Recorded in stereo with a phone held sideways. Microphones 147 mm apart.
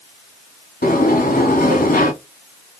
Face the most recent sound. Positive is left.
turn(degrees=80)